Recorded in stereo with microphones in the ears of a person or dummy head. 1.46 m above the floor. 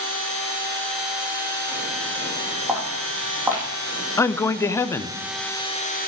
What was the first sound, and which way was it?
Footsteps, 15° right (ahead or behind).